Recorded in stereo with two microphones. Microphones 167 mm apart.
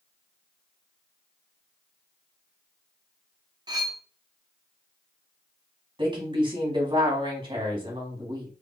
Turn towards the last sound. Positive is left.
turn(degrees=-30)  # may be behind; listen again after turning